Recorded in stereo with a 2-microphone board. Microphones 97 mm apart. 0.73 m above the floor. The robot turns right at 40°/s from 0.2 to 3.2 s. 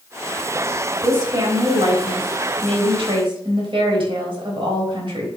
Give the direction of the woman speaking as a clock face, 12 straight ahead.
5 o'clock.